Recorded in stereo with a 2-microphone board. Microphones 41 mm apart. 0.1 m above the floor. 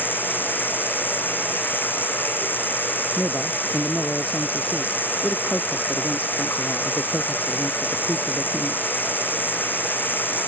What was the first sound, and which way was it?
Running water, 60° left (ahead or behind).